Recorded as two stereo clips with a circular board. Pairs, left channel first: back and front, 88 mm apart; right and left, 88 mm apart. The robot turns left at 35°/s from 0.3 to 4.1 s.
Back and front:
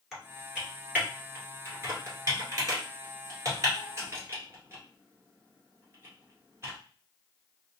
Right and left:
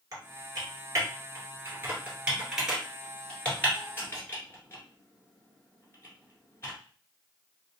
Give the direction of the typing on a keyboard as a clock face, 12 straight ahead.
9 o'clock.